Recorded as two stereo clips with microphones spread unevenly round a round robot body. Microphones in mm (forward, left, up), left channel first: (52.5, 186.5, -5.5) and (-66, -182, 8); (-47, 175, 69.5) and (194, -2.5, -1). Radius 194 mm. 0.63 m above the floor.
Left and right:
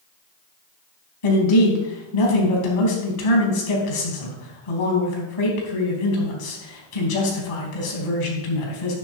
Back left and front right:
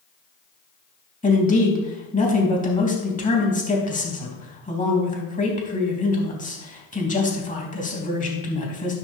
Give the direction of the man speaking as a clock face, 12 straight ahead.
9 o'clock.